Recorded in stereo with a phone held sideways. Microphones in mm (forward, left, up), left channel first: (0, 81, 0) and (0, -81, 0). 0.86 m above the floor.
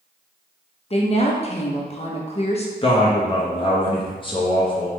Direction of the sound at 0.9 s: 40° left (ahead or behind).